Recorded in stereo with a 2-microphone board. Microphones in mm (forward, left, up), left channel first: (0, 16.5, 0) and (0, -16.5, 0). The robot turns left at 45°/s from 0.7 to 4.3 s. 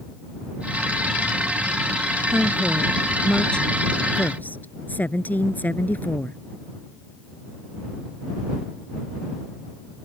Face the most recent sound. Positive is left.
turn(degrees=110)